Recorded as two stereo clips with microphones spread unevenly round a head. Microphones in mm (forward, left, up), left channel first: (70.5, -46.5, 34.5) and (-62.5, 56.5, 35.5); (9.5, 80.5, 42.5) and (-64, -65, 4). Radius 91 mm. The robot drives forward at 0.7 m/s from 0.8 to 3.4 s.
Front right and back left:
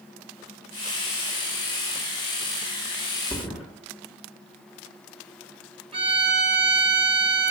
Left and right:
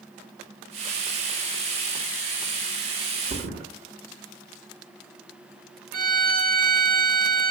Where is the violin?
155° right, 1.0 m.